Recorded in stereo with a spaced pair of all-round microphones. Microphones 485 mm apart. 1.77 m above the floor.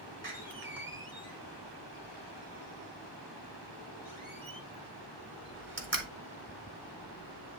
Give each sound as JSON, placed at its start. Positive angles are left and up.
{"t": 0.2, "sound": "a door slam", "side_deg": -40, "distance_m": 1.6}